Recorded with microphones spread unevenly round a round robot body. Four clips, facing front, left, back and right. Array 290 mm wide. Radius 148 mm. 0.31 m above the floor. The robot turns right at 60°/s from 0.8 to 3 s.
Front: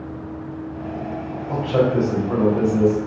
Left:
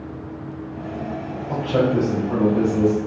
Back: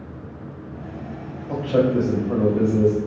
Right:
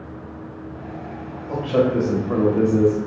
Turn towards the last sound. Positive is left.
turn(degrees=-70)